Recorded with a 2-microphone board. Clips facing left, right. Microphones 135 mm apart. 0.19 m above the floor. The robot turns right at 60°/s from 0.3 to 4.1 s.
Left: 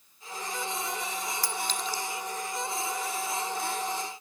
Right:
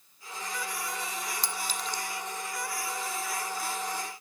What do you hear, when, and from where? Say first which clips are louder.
1.4 s a clink: left 2 dB; 25° right (ahead or behind); by 2.0 s 10° left (ahead or behind)